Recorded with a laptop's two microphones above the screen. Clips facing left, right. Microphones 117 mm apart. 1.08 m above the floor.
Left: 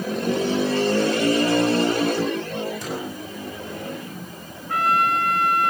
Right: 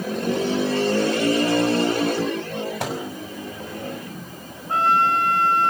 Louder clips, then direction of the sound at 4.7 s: Right 2 dB; 30° right (ahead or behind).